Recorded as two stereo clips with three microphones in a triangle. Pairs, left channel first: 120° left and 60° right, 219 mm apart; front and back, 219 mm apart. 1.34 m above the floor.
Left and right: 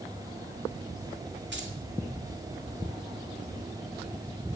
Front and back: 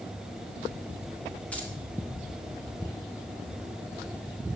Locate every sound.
1.5 s keys jangling: 85° right, 2 m